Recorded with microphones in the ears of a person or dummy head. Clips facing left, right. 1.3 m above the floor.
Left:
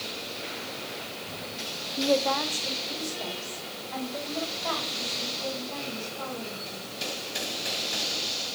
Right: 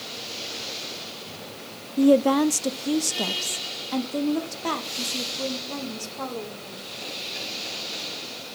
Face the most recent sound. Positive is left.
turn(degrees=-75)  # may be behind; listen again after turning